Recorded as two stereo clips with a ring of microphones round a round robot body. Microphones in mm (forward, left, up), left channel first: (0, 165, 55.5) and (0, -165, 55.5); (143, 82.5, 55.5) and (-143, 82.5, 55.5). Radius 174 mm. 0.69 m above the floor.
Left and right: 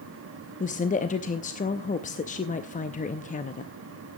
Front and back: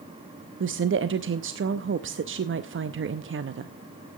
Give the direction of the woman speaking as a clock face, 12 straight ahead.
7 o'clock.